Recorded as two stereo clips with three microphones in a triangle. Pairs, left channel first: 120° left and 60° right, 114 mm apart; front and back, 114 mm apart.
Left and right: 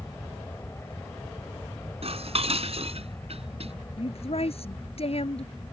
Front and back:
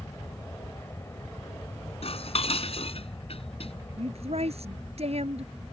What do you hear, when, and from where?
0.0 s an aircraft: 60° left
2.0 s dishes clattering: 30° right
4.0 s a woman speaking: 150° left